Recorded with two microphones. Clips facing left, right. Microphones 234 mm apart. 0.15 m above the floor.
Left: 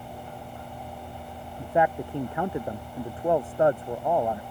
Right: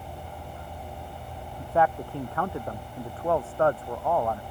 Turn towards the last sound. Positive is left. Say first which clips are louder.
# left 1 dB
turn(degrees=15)  # may be behind; listen again after turning